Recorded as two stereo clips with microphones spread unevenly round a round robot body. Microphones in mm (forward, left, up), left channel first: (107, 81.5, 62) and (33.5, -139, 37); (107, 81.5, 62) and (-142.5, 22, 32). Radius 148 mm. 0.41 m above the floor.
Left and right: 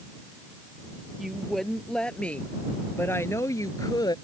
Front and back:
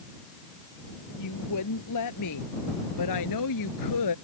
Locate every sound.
1.2 s a woman speaking: 20° right; by 4.2 s straight ahead